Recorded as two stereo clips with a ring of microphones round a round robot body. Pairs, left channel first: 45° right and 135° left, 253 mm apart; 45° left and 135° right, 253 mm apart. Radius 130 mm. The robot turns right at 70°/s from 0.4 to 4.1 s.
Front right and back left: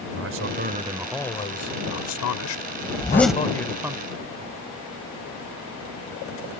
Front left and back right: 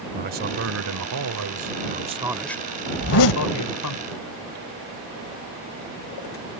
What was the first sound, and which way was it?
A man speaking, 175° left.